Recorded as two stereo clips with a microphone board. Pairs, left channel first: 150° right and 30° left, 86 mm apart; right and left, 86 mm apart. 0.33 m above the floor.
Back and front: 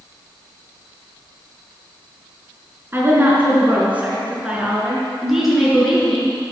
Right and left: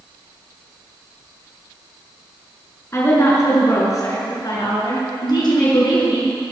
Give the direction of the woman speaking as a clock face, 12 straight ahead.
1 o'clock.